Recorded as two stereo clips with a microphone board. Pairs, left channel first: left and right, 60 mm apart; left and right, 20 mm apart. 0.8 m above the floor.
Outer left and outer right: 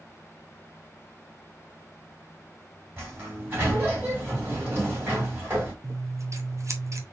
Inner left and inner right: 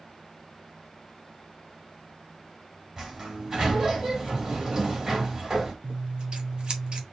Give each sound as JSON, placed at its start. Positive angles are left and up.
{"t": 3.0, "sound": "a sliding door", "side_deg": -40, "distance_m": 2.5}
{"t": 5.8, "sound": "scissors", "side_deg": -55, "distance_m": 0.9}